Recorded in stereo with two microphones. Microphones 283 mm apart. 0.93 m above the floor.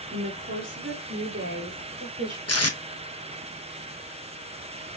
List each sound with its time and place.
0.1 s a woman speaking: 45° right (ahead or behind), 2.5 m; by 2.4 s 40° right (ahead or behind), 3.5 m
2.5 s tape being pulled: 60° left (ahead or behind), 1.1 m